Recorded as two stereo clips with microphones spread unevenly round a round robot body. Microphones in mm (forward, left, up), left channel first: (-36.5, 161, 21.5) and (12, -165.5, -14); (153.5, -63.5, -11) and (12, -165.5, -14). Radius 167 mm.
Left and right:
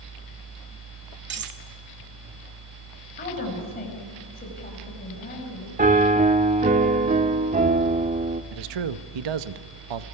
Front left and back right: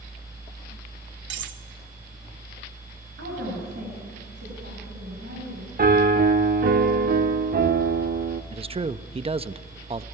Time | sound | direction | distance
1.3 | cutlery clinking | 140° right | 1.2 m
3.2 | a woman speaking | 165° left | 5 m
5.8 | a piano | 150° right | 0.7 m
8.5 | a man speaking | 85° right | 0.8 m